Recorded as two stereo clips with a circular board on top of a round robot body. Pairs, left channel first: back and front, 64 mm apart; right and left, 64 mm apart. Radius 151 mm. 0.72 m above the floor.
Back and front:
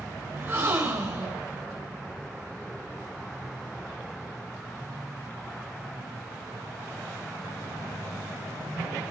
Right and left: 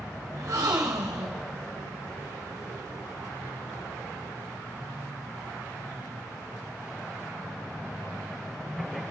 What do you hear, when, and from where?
0.3 s a gasp: 55° left, 2 m